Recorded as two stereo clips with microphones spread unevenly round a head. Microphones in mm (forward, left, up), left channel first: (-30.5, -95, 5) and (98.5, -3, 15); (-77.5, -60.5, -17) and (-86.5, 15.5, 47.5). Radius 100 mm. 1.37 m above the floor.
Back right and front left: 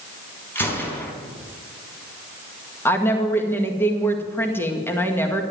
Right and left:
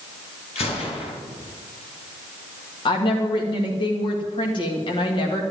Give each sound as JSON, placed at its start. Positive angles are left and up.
{"t": 0.6, "sound": "a gunshot", "azimuth_deg": -65, "distance_m": 4.0}
{"t": 2.9, "sound": "a woman speaking", "azimuth_deg": -70, "distance_m": 1.9}